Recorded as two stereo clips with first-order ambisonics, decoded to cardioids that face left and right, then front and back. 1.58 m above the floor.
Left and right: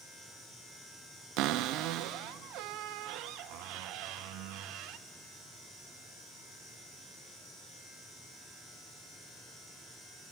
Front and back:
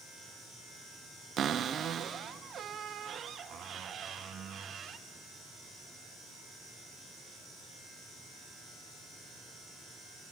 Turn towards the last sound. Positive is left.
turn(degrees=-120)